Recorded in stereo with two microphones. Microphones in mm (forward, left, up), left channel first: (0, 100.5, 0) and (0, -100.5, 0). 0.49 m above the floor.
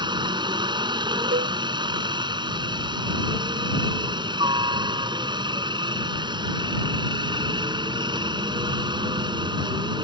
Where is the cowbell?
65° right (ahead or behind).